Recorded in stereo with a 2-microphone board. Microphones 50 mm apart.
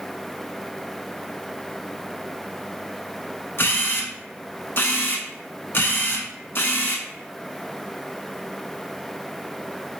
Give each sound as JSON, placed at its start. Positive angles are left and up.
{"t": 3.6, "sound": "a camera shutter", "side_deg": 50, "distance_m": 0.5}